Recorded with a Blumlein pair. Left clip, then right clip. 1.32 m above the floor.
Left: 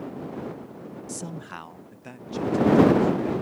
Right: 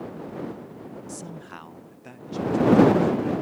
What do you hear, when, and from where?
1.1 s a man speaking: 15° left; by 3.3 s 5° left